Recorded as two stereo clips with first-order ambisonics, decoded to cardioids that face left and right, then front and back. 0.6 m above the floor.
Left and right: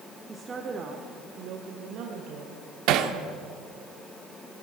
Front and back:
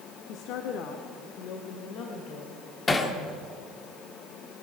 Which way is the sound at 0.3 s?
10° right.